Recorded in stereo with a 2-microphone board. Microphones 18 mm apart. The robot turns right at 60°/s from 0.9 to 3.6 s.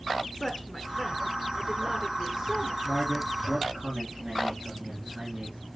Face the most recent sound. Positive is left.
turn(degrees=-100)